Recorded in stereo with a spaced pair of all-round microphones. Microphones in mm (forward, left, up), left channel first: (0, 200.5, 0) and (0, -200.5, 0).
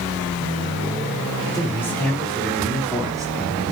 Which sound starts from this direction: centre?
A man speaking, at 1.5 s.